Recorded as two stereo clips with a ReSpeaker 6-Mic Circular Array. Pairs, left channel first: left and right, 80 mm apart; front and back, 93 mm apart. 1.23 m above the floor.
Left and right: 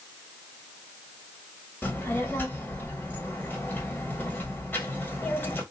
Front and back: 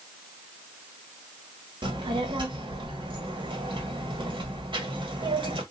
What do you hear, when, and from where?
1.8 s a child speaking: 155° left, 1.6 m